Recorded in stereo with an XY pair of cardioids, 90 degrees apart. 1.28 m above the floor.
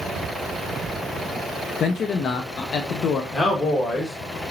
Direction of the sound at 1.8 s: 65° left.